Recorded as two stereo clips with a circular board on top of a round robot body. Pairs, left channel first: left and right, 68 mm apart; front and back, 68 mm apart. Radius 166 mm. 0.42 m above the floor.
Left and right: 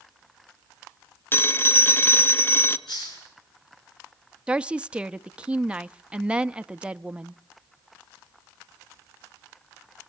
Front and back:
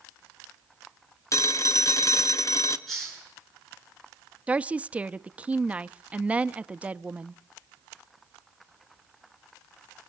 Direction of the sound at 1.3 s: 35° left.